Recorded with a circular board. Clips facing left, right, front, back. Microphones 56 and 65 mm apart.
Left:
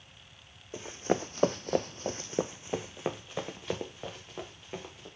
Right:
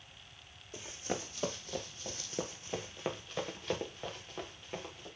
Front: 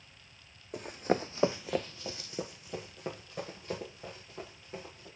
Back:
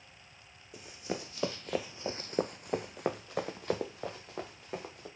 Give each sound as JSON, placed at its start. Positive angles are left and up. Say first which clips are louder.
{"t": 0.7, "sound": "running footsteps", "louder": "left 9 dB, front 8 dB", "azimuth_deg": 30, "distance_m": 0.9}